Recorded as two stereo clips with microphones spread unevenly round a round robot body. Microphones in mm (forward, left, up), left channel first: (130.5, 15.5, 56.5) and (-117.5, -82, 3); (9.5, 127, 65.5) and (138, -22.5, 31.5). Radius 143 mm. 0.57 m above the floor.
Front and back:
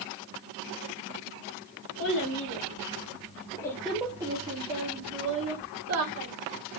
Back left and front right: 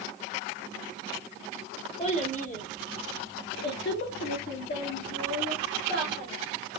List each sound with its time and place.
2.0 s a child speaking: 70° left, 1.7 m; by 6.3 s 160° right, 1.7 m